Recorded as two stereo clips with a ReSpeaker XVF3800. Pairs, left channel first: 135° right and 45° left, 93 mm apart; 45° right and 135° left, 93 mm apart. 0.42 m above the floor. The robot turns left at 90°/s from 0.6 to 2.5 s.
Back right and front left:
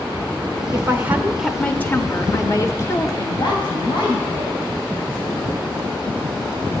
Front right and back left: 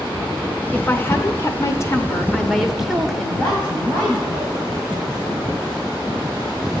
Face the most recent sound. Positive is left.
turn(degrees=-120)